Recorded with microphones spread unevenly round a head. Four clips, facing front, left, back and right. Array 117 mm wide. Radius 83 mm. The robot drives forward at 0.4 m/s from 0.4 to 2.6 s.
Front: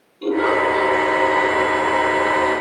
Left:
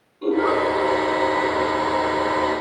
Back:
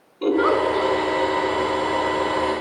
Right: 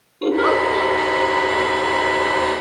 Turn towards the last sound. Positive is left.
turn(degrees=-120)